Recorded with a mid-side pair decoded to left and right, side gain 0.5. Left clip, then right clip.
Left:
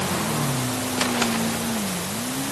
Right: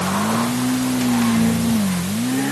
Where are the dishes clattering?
No dishes clattering in this recording.